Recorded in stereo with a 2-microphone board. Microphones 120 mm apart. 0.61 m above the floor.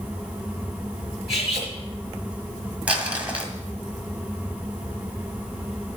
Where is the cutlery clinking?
Centre (ahead or behind), 5.5 m.